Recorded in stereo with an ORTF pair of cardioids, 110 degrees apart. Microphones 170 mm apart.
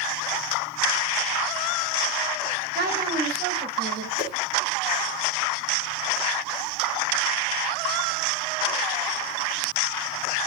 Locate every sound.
2.8 s a woman speaking: 70° right, 4.5 m; by 4.1 s 65° right, 6 m
4.2 s a whoosh: 40° right, 4 m